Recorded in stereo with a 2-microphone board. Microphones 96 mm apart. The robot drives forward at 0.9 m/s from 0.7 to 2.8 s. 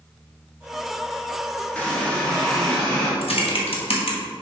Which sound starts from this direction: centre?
A running tap, at 1.8 s.